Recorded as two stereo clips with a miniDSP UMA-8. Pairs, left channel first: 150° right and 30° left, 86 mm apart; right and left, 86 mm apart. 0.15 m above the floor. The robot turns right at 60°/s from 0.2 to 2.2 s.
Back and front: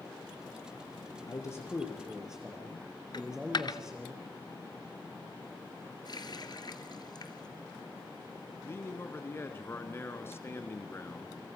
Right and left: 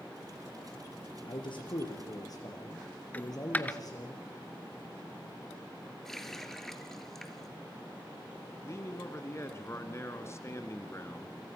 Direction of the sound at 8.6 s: 115° right.